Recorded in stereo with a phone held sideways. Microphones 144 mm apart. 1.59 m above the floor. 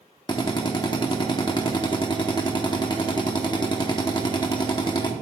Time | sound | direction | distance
0.3 | a drill | 30° left (ahead or behind) | 1.0 m